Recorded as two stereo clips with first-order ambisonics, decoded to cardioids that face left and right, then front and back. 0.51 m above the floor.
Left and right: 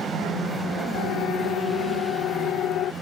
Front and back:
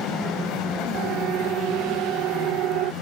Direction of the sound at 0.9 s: 130° left.